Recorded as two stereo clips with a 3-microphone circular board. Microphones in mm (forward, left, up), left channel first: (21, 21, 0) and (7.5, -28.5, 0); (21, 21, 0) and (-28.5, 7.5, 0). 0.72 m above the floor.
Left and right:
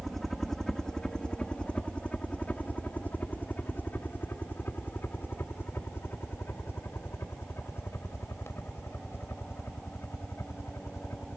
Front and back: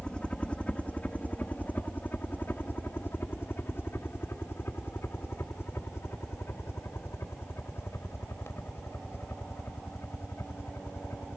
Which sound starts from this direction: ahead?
A helicopter, at 0.0 s.